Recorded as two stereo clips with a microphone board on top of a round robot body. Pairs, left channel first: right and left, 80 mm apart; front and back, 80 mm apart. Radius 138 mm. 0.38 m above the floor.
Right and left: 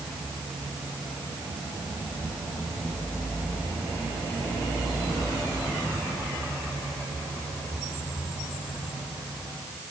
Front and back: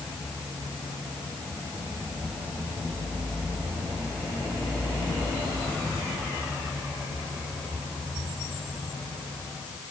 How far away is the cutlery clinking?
No cutlery clinking in this recording.